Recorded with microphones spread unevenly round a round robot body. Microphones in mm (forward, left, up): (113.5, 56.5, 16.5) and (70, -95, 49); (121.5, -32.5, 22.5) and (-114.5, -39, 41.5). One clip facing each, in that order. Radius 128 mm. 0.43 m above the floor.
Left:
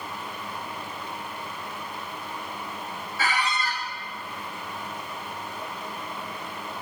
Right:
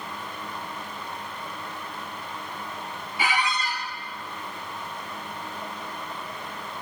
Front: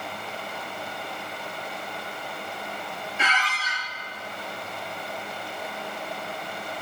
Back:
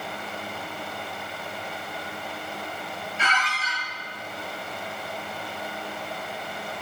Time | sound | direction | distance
3.2 | a squeak | 35° right | 1.2 m